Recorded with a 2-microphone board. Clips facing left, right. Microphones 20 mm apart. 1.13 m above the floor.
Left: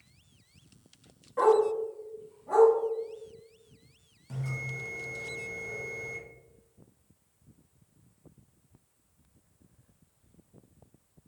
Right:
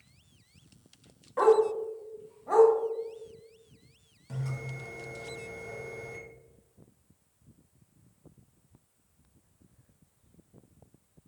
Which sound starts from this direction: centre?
A bell, at 4.3 s.